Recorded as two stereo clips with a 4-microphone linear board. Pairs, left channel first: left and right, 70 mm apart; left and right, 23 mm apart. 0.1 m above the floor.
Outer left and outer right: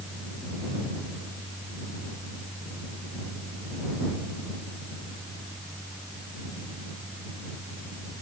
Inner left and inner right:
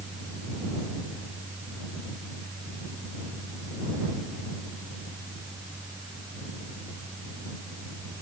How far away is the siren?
I don't hear a siren.